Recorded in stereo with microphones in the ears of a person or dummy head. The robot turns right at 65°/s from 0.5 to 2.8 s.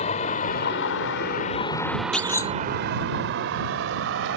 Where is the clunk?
Centre (ahead or behind); by 2.5 s 20° left (ahead or behind).